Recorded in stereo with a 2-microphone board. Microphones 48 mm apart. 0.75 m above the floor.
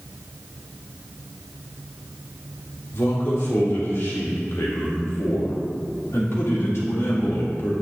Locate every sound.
2.9 s a man speaking: 65° left (ahead or behind), 2.5 m